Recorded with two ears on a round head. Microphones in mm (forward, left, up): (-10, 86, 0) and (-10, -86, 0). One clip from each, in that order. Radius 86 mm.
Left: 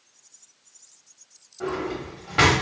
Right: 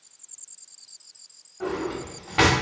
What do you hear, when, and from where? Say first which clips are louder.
1.6 s a drawer: even; 5° left (ahead or behind), 1.0 m